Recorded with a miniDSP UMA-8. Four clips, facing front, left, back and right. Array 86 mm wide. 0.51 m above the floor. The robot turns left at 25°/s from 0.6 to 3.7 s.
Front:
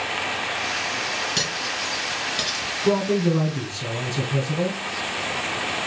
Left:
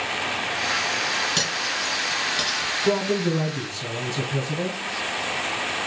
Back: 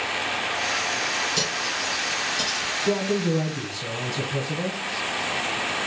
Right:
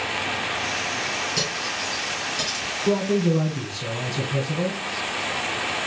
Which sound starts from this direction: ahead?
A man speaking, at 2.8 s.